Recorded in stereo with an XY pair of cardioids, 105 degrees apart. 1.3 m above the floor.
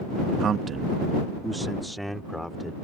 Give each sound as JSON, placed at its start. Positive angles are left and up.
{"t": 0.4, "sound": "a man speaking", "azimuth_deg": -60}